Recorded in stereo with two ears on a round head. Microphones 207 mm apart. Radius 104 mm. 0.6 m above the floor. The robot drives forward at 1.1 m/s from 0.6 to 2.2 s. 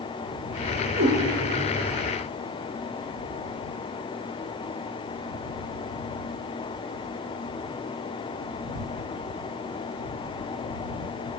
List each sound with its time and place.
1.0 s a cat meowing: 50° right (ahead or behind), 4 m